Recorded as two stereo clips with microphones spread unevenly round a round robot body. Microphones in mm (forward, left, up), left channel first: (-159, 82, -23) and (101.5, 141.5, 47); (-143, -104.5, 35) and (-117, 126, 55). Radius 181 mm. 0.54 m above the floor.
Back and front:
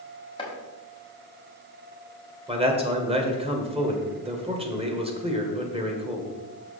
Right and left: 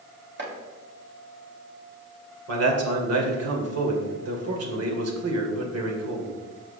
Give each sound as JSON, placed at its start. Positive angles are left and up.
{"t": 0.4, "sound": "chopping", "azimuth_deg": 125, "distance_m": 3.0}
{"t": 2.5, "sound": "a man speaking", "azimuth_deg": 85, "distance_m": 2.0}